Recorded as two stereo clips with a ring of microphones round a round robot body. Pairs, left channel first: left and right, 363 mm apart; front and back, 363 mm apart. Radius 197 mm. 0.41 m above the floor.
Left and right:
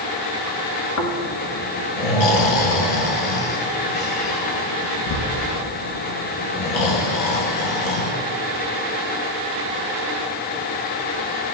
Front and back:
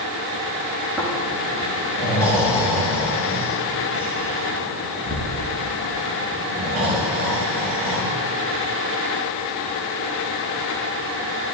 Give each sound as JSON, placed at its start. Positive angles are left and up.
{"t": 1.0, "sound": "snoring", "azimuth_deg": 95, "distance_m": 1.6}